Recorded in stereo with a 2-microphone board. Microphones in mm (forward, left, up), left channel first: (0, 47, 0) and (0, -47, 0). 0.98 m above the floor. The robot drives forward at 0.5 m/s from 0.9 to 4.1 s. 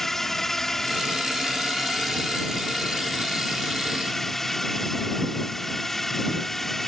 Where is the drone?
5° left (ahead or behind).